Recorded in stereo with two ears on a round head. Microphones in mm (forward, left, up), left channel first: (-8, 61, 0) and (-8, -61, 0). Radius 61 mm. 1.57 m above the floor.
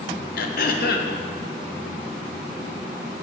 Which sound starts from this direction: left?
Throat clearing, at 0.4 s.